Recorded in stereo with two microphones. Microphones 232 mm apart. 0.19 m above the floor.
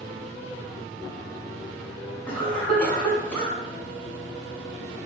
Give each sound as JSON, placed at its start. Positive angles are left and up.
{"t": 2.3, "sound": "a cough", "side_deg": 5, "distance_m": 1.3}